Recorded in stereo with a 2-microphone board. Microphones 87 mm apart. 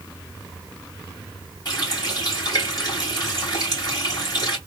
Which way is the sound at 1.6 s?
45° left (ahead or behind).